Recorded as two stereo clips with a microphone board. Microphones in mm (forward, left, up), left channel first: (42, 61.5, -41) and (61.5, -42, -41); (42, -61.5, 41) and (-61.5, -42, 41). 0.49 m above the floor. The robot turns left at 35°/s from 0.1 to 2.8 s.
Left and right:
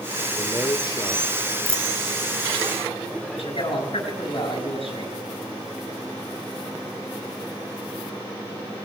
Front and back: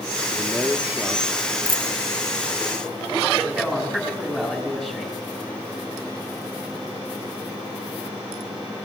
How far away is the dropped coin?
About 1.1 m.